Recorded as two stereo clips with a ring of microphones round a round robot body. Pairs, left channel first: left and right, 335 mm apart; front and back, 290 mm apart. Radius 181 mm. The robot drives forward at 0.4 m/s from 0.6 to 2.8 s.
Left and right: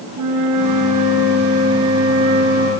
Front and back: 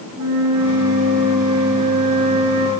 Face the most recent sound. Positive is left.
turn(degrees=-145)